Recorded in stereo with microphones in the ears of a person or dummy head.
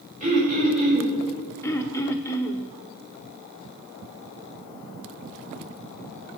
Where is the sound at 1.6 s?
10° left (ahead or behind), 1.1 m.